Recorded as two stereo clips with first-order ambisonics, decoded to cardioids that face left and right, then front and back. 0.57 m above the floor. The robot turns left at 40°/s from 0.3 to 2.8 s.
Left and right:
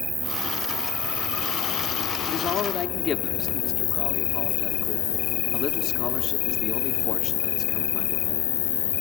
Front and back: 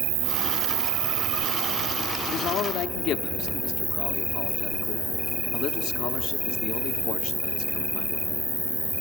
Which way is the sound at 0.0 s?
170° right.